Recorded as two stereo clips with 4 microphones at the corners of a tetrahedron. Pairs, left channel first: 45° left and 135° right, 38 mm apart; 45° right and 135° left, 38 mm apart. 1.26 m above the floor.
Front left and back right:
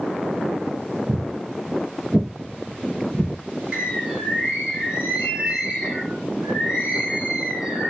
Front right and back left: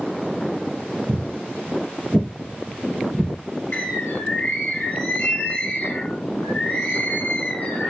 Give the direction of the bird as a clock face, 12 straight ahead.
2 o'clock.